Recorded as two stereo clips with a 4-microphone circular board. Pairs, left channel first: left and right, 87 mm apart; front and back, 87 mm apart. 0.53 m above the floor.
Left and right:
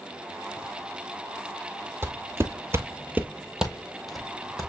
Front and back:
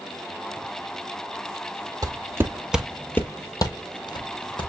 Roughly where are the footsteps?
Behind right.